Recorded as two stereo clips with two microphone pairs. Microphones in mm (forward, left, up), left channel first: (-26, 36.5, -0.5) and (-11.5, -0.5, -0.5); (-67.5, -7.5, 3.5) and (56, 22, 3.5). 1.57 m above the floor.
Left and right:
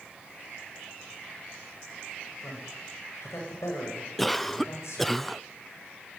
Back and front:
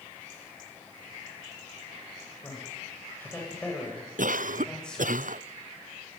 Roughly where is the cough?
Ahead left.